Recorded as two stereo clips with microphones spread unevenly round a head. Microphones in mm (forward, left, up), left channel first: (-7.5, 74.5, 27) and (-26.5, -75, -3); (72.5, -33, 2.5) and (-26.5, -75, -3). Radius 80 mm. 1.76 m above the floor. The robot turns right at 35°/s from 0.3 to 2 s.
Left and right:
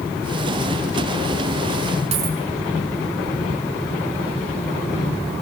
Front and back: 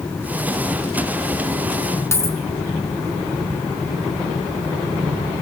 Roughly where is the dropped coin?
Ahead right.